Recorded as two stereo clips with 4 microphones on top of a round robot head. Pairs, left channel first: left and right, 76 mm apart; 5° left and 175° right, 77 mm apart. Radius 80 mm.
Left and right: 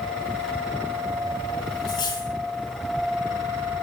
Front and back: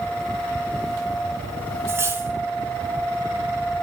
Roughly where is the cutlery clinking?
Behind left.